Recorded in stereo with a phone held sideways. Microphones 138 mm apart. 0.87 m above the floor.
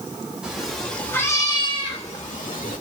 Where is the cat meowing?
5° right (ahead or behind), 1.8 m; by 2.8 s 80° left, 1.6 m.